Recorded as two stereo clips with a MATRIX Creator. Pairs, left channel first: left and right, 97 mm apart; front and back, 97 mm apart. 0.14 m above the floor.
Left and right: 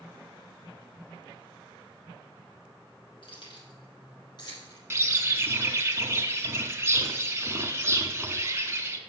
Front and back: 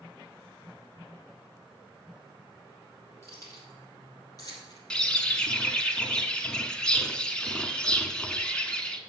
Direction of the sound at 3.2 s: 60° left.